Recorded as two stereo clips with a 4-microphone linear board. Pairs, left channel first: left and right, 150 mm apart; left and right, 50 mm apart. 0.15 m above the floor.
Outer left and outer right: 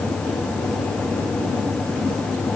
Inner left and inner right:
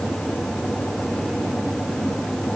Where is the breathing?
I don't hear breathing.